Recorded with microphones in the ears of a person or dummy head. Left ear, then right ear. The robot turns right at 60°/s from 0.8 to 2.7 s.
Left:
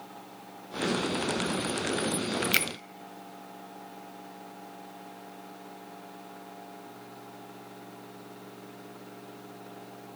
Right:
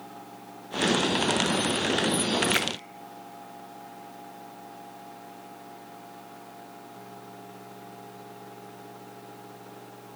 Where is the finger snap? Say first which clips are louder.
Even; 30° left (ahead or behind), 0.6 m; by 2.7 s 35° left (ahead or behind), 0.6 m.